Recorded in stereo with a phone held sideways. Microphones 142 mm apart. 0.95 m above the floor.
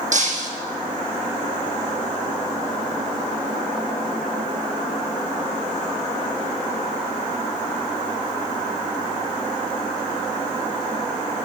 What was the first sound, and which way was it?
Breaking glass, 60° right (ahead or behind).